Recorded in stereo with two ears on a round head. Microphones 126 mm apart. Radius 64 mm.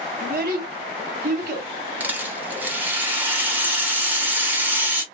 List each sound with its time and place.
0.2 s a child speaking: 65° right (ahead or behind), 1.4 m
2.0 s a rattle: 15° right (ahead or behind), 1.0 m